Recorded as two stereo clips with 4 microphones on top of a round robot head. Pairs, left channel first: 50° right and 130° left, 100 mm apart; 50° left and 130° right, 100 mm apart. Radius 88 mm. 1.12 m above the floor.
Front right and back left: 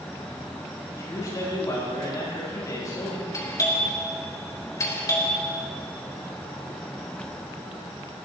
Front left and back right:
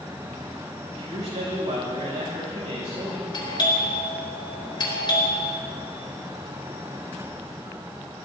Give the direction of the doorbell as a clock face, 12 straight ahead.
12 o'clock.